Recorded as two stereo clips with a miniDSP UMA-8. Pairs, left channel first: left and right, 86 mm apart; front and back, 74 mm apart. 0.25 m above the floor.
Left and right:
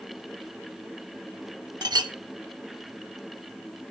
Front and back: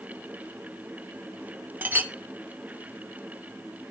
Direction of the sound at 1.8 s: 115° right.